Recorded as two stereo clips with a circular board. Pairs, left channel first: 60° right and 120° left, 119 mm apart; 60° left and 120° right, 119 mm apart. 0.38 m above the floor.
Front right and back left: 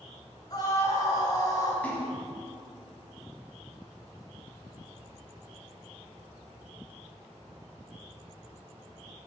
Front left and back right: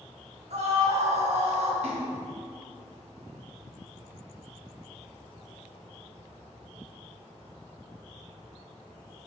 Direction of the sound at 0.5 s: 115° right.